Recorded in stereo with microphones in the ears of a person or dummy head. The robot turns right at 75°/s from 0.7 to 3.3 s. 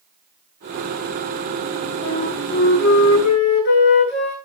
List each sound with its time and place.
2.0 s a flute: 25° left, 8.5 m; by 4.4 s 120° left, 8.5 m